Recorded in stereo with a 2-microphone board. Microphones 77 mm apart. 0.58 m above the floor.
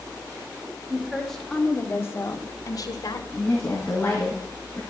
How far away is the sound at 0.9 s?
About 2.5 m.